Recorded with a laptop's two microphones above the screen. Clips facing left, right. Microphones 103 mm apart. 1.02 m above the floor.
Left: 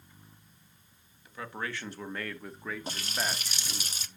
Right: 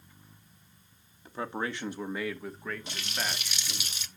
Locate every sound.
1.2 s a man speaking: 35° right (ahead or behind), 1.9 m; by 3.9 s 20° left (ahead or behind), 3.5 m
2.9 s a running tap: 40° left (ahead or behind), 0.6 m